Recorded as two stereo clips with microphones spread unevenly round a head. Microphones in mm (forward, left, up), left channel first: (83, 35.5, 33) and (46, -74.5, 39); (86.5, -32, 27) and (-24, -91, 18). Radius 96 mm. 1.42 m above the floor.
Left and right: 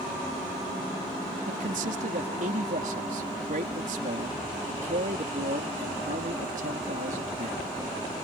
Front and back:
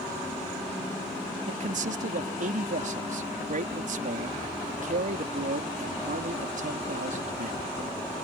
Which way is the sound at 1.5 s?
140° right.